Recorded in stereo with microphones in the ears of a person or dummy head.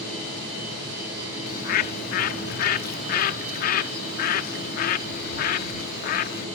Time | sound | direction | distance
1.5 | a bird | 50° left (ahead or behind) | ?